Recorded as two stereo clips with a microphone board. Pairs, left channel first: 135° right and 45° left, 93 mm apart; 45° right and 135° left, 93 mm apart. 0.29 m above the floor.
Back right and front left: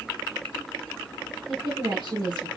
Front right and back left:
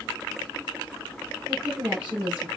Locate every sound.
1.5 s a woman speaking: 60° left, 3 m